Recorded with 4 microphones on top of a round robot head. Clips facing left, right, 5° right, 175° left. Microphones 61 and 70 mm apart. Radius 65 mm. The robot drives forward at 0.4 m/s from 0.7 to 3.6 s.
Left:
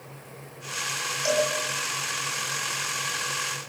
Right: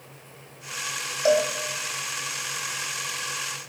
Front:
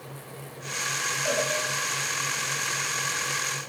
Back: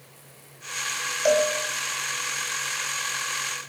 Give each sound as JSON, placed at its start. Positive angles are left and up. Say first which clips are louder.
{"t": 1.2, "sound": "a cowbell", "louder": "right 4 dB, back 8 dB", "azimuth_deg": -140, "distance_m": 10.0}